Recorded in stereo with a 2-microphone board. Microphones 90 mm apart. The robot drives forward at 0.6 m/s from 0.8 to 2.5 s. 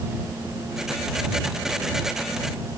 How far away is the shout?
No shout in this recording.